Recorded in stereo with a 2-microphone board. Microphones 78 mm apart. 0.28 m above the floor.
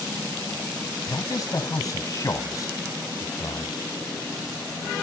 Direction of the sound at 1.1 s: 45° left (ahead or behind).